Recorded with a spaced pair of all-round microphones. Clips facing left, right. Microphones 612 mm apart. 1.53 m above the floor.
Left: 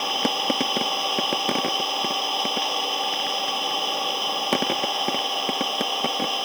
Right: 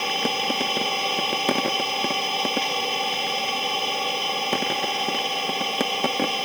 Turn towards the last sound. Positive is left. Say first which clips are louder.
# even
turn(degrees=-50)  # may be behind; listen again after turning